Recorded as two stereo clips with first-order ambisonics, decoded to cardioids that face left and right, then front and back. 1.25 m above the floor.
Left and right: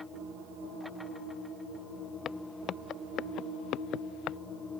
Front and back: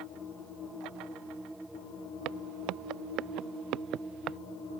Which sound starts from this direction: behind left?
Footsteps, at 2.2 s.